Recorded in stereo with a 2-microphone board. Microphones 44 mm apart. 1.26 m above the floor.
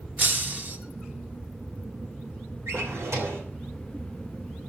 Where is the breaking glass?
35° right (ahead or behind), 1.3 m.